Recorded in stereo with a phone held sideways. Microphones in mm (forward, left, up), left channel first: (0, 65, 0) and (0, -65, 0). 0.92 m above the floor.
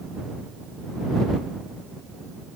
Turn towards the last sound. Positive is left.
No sound to turn to.